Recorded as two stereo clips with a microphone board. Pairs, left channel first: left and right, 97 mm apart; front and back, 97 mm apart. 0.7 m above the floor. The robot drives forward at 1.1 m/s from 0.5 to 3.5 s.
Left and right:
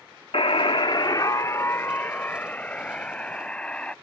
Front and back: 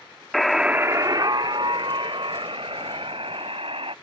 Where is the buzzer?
90° left; by 3.9 s 170° left.